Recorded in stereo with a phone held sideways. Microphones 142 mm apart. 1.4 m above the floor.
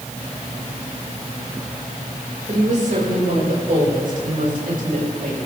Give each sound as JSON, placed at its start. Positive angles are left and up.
{"t": 2.5, "sound": "a woman speaking", "side_deg": -60, "distance_m": 6.5}